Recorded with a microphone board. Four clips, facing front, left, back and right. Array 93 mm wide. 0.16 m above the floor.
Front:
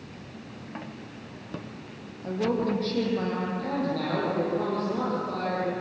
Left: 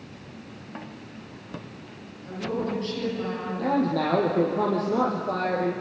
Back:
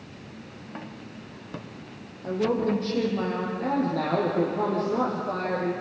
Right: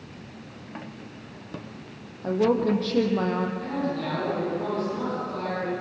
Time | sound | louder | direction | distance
2.2 | a woman speaking | right 7 dB, back 2 dB | 100° right | 5.5 m
3.6 | a man speaking | left 5 dB, back 3 dB | 100° left | 5 m